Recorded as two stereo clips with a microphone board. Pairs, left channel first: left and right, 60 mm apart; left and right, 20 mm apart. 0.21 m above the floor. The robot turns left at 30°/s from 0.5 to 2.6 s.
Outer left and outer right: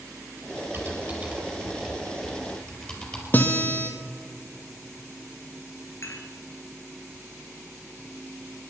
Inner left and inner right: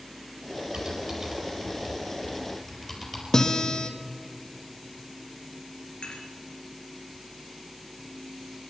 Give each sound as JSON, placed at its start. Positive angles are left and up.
{"t": 0.7, "sound": "typing on a keyboard", "side_deg": -45, "distance_m": 4.0}
{"t": 3.3, "sound": "a guitar", "side_deg": 30, "distance_m": 1.5}
{"t": 6.0, "sound": "dishes clattering", "side_deg": 50, "distance_m": 3.0}